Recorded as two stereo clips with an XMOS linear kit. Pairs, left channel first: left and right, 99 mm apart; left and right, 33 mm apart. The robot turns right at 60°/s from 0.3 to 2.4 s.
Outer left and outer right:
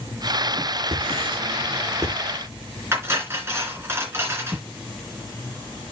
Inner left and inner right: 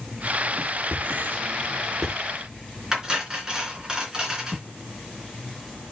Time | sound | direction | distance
0.9 | writing | 85° right | 5.5 m
2.9 | cutlery clinking | 25° right (ahead or behind) | 3 m